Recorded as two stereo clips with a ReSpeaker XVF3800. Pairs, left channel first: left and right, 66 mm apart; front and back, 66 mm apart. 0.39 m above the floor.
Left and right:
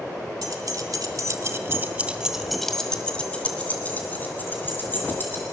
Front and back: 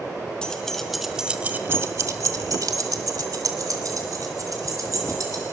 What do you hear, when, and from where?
0.4 s keys jangling: 75° right, 1.8 m; by 5.4 s 145° left, 4 m